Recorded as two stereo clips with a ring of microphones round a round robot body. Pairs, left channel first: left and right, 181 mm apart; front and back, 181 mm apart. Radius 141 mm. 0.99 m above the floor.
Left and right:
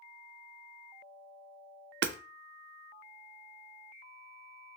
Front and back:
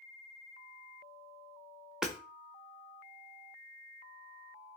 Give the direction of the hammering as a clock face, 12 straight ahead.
3 o'clock.